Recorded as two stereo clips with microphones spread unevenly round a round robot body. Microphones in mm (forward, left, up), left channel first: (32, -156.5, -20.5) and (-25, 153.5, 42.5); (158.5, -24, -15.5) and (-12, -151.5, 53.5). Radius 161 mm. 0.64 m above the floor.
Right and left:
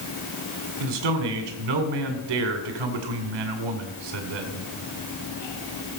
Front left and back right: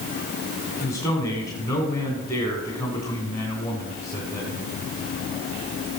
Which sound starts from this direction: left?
A man speaking, at 0.8 s.